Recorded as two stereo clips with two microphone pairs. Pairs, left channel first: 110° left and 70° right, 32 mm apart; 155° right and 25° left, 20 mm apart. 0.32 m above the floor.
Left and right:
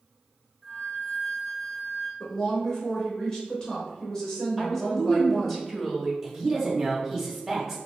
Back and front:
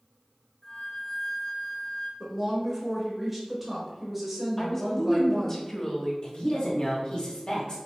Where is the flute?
165° left, 1.4 m.